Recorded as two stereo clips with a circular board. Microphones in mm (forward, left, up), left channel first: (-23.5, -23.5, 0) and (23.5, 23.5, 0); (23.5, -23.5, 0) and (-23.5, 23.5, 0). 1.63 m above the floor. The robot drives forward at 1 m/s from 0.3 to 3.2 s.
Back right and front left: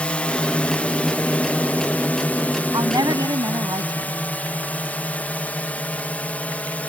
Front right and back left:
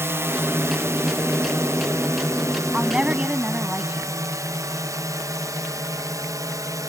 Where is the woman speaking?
60° left.